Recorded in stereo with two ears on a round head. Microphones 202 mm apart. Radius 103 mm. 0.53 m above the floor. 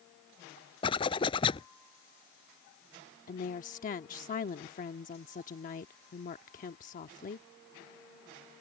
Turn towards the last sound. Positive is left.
turn(degrees=40)  # may be behind; listen again after turning